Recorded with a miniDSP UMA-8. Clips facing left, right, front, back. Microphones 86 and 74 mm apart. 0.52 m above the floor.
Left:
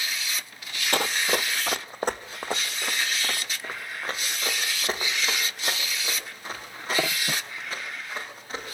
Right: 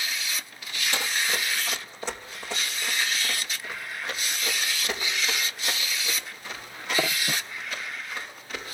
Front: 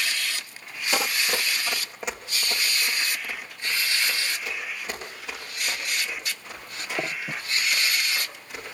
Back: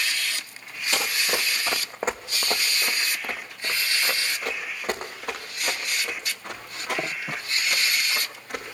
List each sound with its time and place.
0.9 s running footsteps: 75° left, 0.8 m; by 8.6 s 145° left, 9 m